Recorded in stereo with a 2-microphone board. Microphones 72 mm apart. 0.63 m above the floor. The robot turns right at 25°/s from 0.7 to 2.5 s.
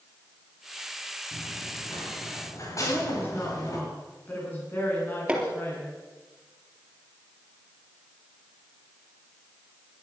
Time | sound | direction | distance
1.3 | running footsteps | 70° left (ahead or behind) | 7 m
2.8 | a woman speaking | 30° left (ahead or behind) | 7.5 m
5.3 | hammering | 15° right (ahead or behind) | 3.5 m